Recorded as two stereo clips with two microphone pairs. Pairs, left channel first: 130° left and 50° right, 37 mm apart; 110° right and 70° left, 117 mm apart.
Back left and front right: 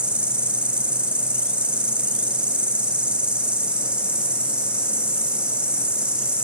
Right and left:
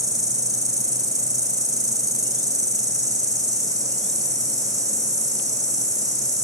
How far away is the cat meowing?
I don't hear a cat meowing.